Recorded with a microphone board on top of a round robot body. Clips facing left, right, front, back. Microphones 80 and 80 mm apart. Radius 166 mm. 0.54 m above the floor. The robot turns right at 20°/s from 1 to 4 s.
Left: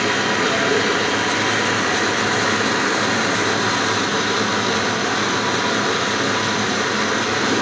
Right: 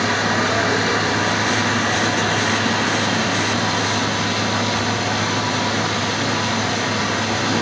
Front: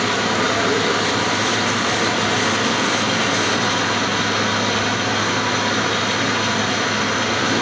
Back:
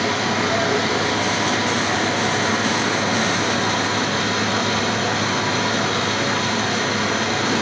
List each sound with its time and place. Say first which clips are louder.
0.0 s running water: even, front 2 dB; 15° right, 4 m; by 7.6 s 45° left, 4 m